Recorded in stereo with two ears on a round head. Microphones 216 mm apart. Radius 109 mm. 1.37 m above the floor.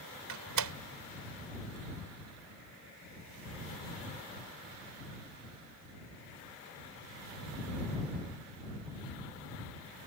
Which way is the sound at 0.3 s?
80° right.